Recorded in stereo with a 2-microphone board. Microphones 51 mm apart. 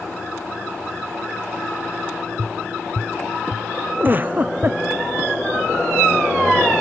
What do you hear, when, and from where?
2.4 s tapping: 25° right (ahead or behind)
4.0 s a giggle: 30° right (ahead or behind)